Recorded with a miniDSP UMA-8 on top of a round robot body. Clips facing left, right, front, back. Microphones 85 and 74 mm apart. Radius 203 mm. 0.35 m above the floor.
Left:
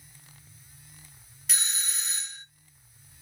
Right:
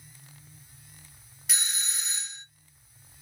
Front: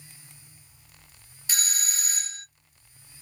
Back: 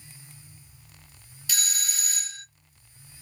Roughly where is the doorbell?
Ahead.